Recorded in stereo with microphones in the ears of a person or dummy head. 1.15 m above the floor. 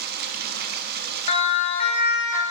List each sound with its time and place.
0.0 s running water: 55° right (ahead or behind), 1.1 m
1.3 s a siren: 40° left (ahead or behind), 2.5 m; by 2.4 s 45° left (ahead or behind), 2 m